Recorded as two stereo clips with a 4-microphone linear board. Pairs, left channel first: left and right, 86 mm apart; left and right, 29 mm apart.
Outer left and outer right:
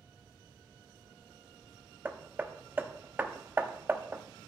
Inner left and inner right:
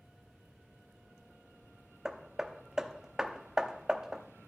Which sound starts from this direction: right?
Hammering, at 2.0 s.